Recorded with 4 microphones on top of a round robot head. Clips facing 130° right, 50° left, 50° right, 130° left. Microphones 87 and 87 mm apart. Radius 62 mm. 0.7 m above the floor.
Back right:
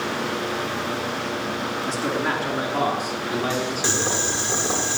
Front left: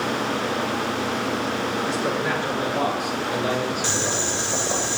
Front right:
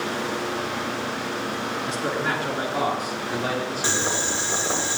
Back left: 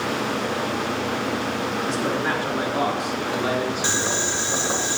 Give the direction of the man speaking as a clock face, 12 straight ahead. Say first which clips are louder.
Back right 2 dB, back left 1 dB; 6 o'clock.